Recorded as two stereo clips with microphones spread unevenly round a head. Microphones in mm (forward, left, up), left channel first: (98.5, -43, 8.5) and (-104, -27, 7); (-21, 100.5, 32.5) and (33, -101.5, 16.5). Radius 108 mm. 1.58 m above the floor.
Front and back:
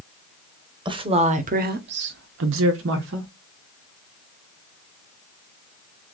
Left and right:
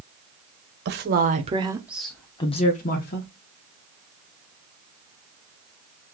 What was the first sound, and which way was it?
A woman speaking, 115° right.